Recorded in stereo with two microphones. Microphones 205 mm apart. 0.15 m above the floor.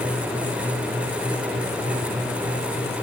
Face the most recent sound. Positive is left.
No sound to turn to.